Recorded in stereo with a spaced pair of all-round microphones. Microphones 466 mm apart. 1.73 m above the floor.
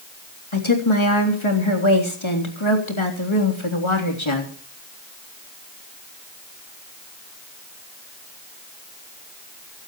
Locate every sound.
0.5 s a woman speaking: 85° left, 3.5 m